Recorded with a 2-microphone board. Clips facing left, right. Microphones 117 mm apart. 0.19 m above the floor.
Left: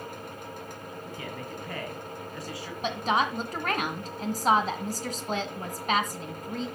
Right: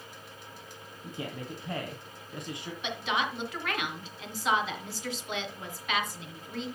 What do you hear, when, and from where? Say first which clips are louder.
1.0 s a man speaking: right 2 dB; 20° right (ahead or behind), 1.3 m
2.8 s a woman speaking: left 5 dB; 40° left (ahead or behind), 1.8 m